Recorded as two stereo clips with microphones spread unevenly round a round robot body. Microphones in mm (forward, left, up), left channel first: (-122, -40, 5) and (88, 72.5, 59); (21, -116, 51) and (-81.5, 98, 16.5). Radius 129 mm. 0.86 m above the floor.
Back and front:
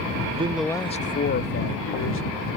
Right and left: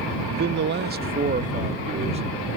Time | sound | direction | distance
0.3 | a man speaking | 90° left | ?